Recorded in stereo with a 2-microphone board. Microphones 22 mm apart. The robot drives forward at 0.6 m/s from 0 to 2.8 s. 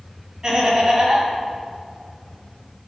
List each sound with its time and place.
0.4 s laughter: 40° right (ahead or behind), 2.5 m; by 1.3 s 45° right (ahead or behind), 2 m